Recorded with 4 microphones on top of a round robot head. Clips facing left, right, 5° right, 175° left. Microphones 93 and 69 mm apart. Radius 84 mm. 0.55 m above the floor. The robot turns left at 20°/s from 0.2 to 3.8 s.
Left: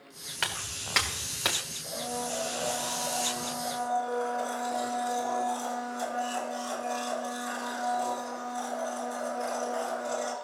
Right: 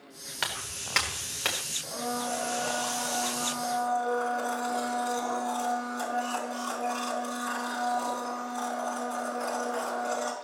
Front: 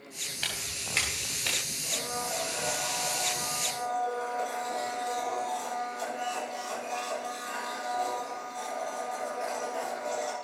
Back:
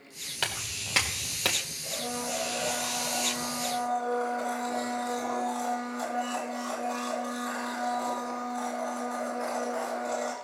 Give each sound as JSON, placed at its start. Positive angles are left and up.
{"t": 0.4, "sound": "footsteps", "azimuth_deg": -175, "distance_m": 3.5}
{"t": 1.8, "sound": "a blender", "azimuth_deg": -85, "distance_m": 3.5}